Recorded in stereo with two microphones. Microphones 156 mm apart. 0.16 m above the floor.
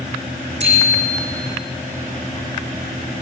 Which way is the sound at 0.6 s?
40° right (ahead or behind).